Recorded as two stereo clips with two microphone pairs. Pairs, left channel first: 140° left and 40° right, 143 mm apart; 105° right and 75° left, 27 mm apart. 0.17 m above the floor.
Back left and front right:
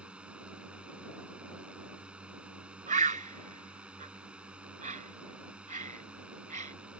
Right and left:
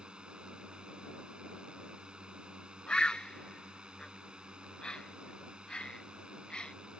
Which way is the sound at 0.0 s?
40° left.